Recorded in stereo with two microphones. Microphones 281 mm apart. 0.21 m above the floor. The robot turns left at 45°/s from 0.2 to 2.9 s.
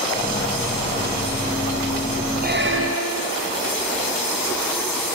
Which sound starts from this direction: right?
A squeak, at 2.4 s.